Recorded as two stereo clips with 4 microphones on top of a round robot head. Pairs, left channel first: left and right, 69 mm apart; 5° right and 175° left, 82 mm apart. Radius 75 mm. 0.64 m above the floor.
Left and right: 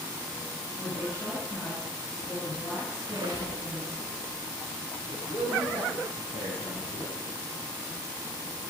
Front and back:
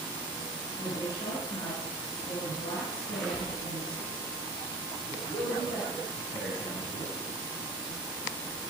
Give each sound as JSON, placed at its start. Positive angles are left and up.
{"t": 0.8, "sound": "a woman speaking", "azimuth_deg": 30, "distance_m": 4.5}
{"t": 3.0, "sound": "a squeak", "azimuth_deg": -95, "distance_m": 2.5}
{"t": 5.1, "sound": "a man speaking", "azimuth_deg": -55, "distance_m": 5.0}